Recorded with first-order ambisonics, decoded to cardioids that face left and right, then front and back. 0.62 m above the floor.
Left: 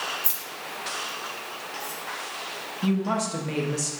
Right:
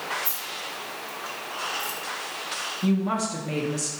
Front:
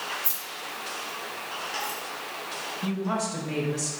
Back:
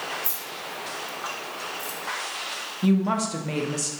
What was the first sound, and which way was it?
Keys jangling, 95° left.